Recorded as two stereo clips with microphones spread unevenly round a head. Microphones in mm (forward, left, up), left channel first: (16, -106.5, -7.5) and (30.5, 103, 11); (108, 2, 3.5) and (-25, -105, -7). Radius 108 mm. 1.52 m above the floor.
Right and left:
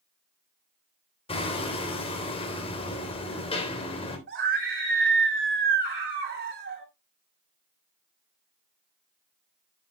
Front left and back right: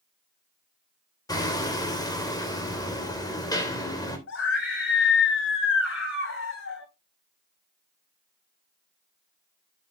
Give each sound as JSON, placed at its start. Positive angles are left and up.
{"t": 1.3, "sound": "hammering", "azimuth_deg": -30, "distance_m": 3.0}
{"t": 4.3, "sound": "a scream", "azimuth_deg": 45, "distance_m": 8.0}